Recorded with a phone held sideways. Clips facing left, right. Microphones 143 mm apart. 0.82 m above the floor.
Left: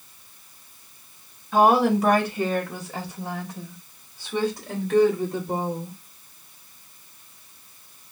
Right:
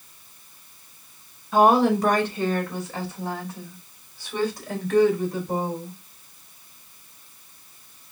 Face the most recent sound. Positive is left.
turn(degrees=25)  # may be behind; listen again after turning